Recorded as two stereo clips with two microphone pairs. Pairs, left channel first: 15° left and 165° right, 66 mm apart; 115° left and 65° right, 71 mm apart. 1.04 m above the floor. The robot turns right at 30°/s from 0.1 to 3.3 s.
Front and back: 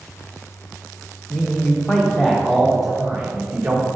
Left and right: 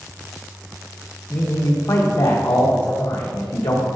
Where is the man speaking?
70° left, 1.0 m; by 3.9 s 130° left, 1.0 m.